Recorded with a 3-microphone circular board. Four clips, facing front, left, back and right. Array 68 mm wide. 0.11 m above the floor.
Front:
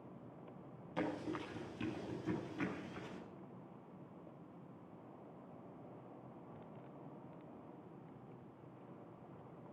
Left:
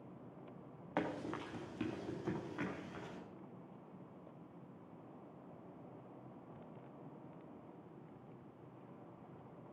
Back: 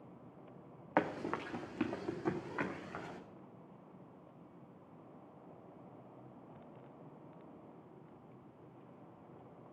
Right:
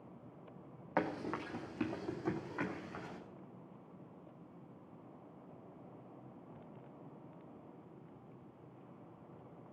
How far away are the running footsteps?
About 1.6 m.